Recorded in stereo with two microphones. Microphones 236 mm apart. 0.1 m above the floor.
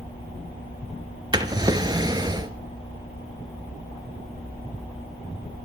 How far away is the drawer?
About 0.5 m.